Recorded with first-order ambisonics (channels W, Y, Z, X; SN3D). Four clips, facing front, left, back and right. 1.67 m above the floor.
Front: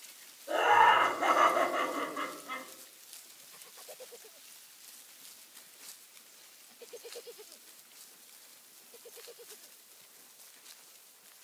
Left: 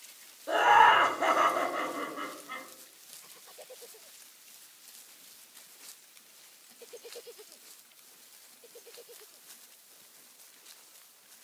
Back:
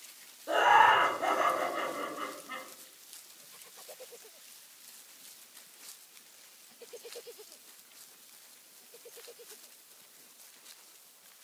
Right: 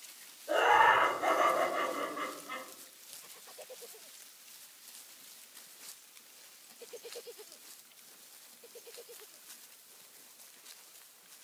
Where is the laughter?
120° left, 0.8 m; by 2.6 s straight ahead, 1.3 m.